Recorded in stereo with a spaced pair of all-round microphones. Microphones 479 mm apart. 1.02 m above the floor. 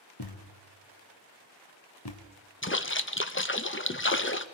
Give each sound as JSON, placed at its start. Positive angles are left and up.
{"t": 0.2, "sound": "a thud", "side_deg": 55, "distance_m": 2.0}
{"t": 2.6, "sound": "a splash", "side_deg": 25, "distance_m": 0.8}